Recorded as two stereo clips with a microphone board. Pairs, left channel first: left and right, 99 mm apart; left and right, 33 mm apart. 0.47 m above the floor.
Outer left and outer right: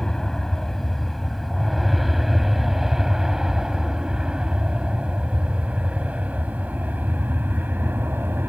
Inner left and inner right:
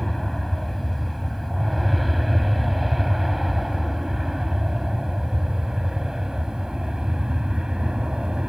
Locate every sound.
0.0 s an aircraft: 5° left (ahead or behind); by 8.5 s 20° right (ahead or behind)